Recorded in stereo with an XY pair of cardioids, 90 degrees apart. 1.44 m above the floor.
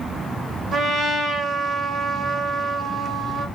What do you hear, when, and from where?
0.7 s a trumpet: 70° right, 1.7 m